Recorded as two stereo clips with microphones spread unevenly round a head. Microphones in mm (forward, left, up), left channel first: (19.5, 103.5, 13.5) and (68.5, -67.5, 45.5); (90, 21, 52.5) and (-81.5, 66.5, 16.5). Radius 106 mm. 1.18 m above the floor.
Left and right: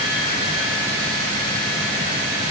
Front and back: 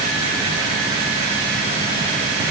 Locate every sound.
Only background noise.